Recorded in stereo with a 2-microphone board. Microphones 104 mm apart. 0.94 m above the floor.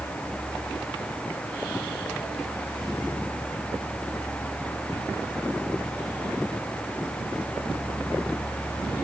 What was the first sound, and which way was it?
Only background noise.